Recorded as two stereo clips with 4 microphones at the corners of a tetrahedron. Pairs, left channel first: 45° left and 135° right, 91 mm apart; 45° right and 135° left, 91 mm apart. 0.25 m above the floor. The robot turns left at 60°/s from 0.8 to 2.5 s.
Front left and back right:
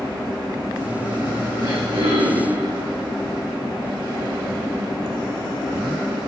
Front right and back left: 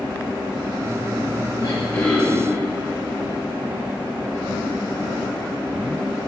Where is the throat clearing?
95° right, 3.5 m; by 2.6 s 145° right, 3.5 m.